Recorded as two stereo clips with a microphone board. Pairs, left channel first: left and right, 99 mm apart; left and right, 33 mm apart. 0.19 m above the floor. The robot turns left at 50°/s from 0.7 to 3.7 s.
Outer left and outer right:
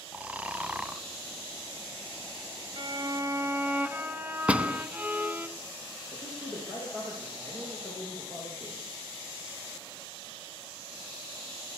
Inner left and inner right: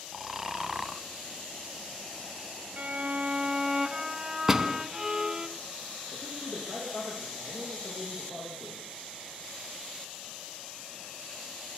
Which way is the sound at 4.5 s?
10° right (ahead or behind).